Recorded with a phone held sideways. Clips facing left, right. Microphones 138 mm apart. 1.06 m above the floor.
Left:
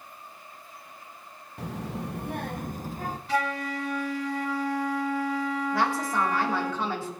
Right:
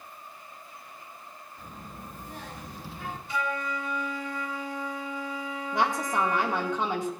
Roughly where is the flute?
Left.